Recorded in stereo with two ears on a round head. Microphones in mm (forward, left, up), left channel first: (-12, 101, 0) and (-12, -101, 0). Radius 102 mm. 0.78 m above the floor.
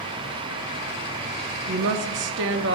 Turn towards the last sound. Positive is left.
turn(degrees=-55)  # may be behind; listen again after turning